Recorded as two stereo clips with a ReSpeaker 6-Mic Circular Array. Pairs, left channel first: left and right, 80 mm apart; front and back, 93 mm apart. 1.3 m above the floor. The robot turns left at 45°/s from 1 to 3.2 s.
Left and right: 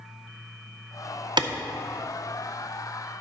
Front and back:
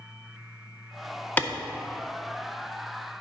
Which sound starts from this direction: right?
A clap, at 1.4 s.